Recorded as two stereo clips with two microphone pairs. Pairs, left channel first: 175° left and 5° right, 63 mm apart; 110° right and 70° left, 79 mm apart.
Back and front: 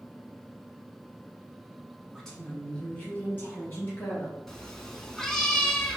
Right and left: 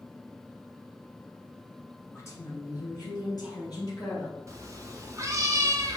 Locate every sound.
2.1 s a woman speaking: 105° right, 1.1 m; by 4.4 s 135° right, 2.5 m
4.5 s a cat meowing: 95° left, 0.5 m